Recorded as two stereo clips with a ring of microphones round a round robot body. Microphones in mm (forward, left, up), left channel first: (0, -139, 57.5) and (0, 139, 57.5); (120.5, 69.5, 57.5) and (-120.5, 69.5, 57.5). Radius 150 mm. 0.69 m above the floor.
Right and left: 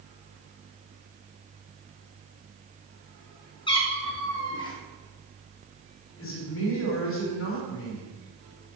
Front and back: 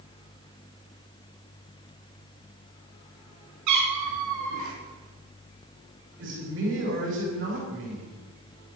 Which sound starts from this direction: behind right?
A man speaking, at 6.2 s.